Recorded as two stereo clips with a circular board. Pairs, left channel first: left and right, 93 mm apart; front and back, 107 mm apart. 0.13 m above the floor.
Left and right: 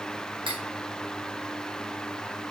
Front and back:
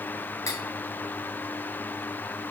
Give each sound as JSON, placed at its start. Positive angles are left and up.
{"t": 0.5, "sound": "cutlery clinking", "azimuth_deg": -60, "distance_m": 4.5}